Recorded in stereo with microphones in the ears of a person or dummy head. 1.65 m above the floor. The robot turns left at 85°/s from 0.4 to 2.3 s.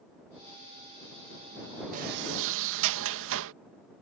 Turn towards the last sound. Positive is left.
turn(degrees=-70)